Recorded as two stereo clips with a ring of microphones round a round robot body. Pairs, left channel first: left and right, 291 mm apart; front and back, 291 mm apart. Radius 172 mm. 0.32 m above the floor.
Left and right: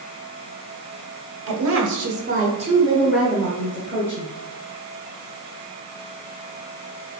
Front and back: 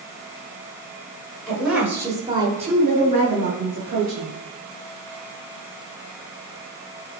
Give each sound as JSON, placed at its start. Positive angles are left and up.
{"t": 1.5, "sound": "a woman speaking", "azimuth_deg": -90, "distance_m": 1.6}